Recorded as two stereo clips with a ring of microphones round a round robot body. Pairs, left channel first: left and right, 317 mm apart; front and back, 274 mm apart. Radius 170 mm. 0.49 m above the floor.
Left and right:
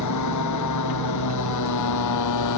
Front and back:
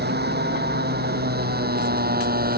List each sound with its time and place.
0.0 s a motorcycle: 125° left